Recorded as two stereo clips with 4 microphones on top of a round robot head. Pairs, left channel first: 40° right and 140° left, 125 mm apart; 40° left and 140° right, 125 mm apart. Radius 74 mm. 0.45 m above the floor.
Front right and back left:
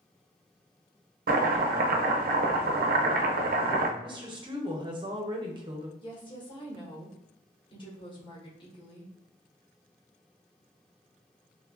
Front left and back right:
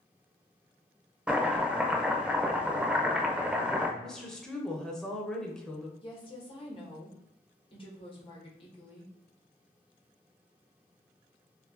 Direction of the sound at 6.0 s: 5° left.